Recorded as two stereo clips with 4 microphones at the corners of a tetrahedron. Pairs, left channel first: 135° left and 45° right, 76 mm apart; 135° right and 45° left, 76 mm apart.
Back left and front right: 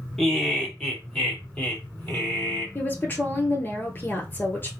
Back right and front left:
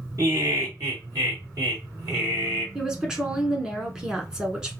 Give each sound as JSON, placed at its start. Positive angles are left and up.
{"t": 0.2, "sound": "laughter", "azimuth_deg": 55, "distance_m": 2.5}
{"t": 2.8, "sound": "a woman speaking", "azimuth_deg": 115, "distance_m": 1.2}